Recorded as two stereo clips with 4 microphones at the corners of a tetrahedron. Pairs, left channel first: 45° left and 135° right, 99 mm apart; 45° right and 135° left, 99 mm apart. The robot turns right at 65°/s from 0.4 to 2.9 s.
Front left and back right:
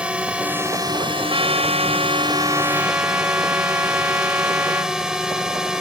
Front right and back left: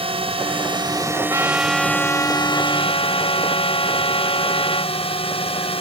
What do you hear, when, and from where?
0.0 s a drone: 145° left; by 5.8 s 50° right
1.3 s a trumpet: 170° right; by 5.0 s 65° right